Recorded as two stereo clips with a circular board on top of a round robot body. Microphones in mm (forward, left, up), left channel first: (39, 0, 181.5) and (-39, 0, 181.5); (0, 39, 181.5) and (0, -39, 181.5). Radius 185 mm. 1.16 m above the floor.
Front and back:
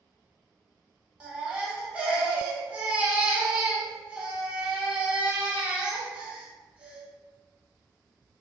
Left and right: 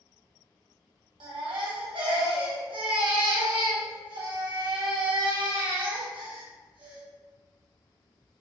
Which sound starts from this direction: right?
A baby crying, at 1.2 s.